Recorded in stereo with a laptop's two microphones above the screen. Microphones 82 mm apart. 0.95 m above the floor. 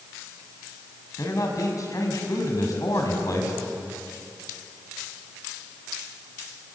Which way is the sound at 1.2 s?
45° left (ahead or behind).